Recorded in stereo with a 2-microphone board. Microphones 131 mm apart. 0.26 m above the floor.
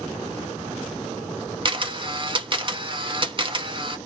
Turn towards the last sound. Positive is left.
turn(degrees=-40)  # may be behind; listen again after turning